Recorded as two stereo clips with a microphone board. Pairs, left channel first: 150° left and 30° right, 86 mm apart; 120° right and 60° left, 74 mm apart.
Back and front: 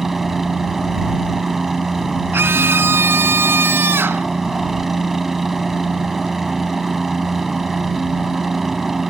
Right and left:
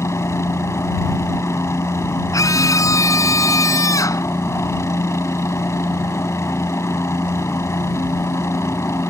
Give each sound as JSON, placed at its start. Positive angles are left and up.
{"t": 0.0, "sound": "a helicopter", "azimuth_deg": -115}
{"t": 2.3, "sound": "a scream", "azimuth_deg": -90}